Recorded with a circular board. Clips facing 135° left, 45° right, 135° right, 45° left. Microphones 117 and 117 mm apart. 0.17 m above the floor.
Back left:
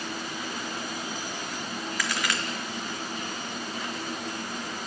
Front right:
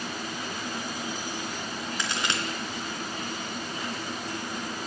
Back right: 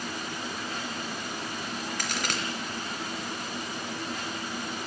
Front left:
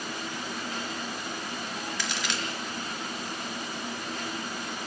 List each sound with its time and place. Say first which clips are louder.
2.0 s a crack: back left 1 dB, back right 1 dB; 105° right, 3 m